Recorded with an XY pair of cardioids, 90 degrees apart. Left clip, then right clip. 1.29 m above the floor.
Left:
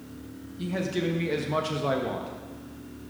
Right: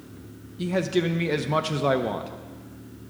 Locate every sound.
0.6 s a man speaking: 40° right, 0.6 m